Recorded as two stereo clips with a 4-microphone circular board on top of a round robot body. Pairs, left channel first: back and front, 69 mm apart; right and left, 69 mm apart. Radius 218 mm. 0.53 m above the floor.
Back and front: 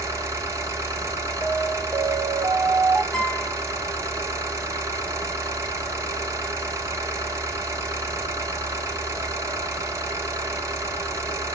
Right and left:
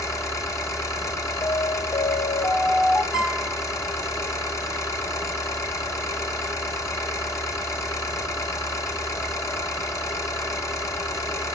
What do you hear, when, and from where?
0.0 s an engine running: 45° right, 1.4 m
1.4 s an alarm: 55° right, 0.9 m
3.1 s a guitar: 105° right, 4.5 m